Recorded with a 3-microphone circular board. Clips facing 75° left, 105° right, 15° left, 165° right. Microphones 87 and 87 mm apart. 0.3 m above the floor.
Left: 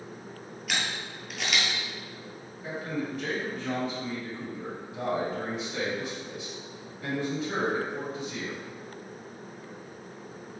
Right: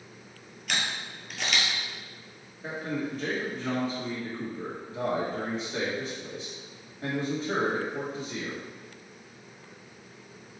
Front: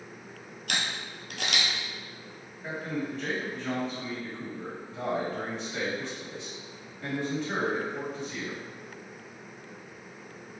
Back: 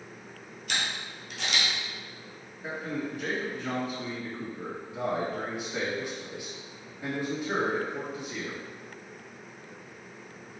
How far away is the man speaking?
About 1.7 m.